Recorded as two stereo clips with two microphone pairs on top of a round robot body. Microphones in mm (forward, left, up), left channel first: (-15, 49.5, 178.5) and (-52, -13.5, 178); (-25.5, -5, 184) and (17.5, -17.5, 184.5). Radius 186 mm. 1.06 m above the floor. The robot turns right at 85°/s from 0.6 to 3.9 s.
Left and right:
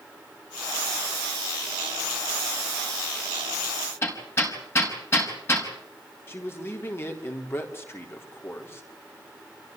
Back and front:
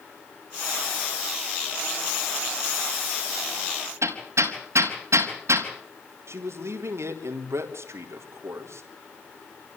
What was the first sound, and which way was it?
Hammering, straight ahead.